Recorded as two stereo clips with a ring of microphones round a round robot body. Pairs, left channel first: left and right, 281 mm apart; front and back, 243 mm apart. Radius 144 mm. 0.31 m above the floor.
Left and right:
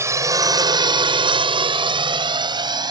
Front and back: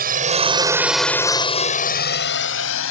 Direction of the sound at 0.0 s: 165° right.